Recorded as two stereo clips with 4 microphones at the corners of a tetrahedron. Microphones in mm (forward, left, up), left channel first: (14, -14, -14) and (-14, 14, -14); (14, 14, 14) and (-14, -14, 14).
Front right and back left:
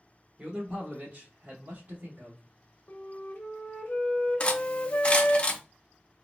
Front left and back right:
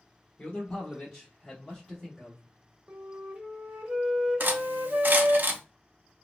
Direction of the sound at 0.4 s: 90° left.